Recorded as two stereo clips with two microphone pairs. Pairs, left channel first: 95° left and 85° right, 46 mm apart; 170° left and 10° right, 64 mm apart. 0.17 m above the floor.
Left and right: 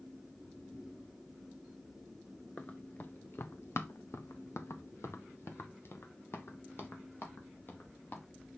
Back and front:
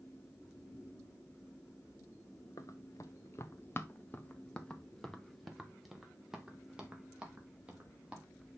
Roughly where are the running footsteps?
Behind left.